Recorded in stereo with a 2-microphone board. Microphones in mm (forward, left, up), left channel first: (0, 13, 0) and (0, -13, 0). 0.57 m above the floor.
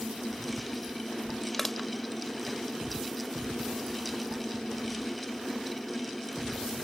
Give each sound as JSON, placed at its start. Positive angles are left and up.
{"t": 1.5, "sound": "crushing", "side_deg": 10}